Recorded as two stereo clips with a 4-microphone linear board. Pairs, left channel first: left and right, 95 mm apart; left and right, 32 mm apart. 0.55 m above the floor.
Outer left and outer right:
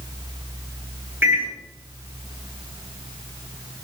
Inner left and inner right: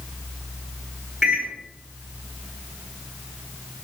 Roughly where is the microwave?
Centre.